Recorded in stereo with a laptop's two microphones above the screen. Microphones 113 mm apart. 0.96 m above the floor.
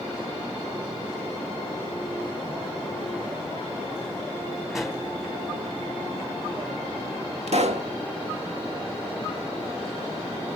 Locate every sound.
4.7 s a pop: 5° right (ahead or behind), 3 m
7.5 s a pop: 70° right (ahead or behind), 1.3 m